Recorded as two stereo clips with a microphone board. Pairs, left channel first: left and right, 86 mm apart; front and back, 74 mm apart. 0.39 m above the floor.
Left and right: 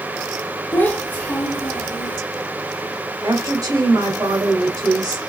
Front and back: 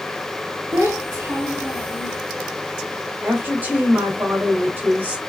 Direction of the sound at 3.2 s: 120° right.